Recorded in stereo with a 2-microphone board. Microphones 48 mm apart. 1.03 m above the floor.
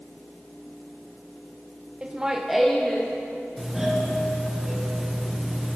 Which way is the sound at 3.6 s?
5° right (ahead or behind).